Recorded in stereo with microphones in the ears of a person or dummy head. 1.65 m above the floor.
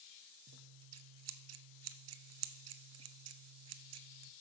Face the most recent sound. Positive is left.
turn(degrees=-80)